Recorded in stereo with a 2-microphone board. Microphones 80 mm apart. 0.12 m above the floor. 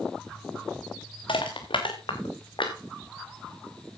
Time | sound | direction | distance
1.3 | crushing | 85° left | 3 m